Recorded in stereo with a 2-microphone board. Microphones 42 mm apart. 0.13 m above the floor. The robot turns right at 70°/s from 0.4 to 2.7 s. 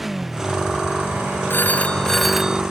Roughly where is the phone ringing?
Behind left.